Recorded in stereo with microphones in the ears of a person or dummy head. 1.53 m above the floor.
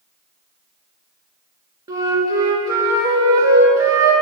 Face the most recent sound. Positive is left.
turn(degrees=-20)  # may be behind; listen again after turning